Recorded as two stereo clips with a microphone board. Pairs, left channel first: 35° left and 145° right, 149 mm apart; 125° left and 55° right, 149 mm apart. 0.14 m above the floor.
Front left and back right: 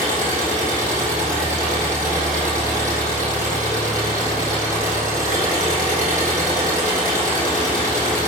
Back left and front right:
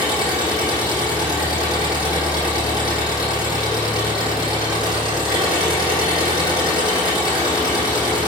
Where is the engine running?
175° right, 6.5 m.